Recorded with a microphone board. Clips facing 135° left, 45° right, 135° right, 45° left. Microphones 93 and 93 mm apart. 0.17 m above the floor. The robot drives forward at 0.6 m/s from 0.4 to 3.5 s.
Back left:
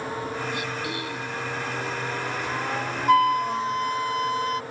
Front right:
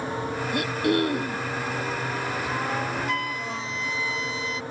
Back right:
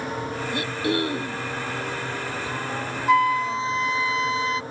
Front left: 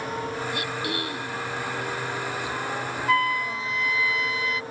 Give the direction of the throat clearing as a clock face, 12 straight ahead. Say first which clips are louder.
Front right 7 dB, back right 4 dB; 2 o'clock.